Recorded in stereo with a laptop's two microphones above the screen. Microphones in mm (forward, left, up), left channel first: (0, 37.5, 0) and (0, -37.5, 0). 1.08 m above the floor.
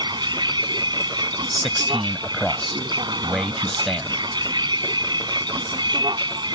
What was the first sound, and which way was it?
A vehicle, 80° right.